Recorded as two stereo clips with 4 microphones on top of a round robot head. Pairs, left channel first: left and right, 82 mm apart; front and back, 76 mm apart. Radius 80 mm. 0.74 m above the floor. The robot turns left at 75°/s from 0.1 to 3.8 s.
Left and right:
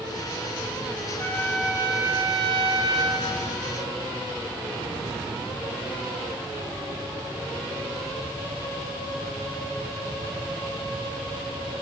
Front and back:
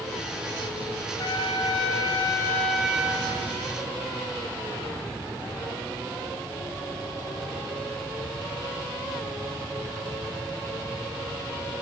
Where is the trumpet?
25° left, 1.6 m; by 3.3 s 130° right, 1.6 m.